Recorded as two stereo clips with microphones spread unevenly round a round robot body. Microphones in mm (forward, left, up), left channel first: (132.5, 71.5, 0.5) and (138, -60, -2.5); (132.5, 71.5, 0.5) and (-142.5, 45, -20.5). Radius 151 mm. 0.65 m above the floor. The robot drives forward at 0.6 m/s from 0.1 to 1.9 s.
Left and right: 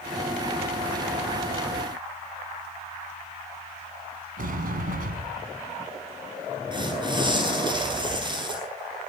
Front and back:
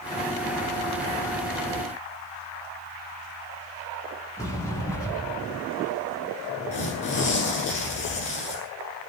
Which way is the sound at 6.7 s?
30° right.